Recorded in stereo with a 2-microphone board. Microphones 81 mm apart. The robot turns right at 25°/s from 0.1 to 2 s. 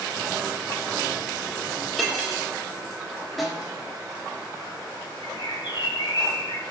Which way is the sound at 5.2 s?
60° left (ahead or behind).